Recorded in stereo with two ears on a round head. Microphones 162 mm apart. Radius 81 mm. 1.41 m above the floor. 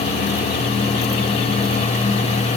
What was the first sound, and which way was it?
Only background noise.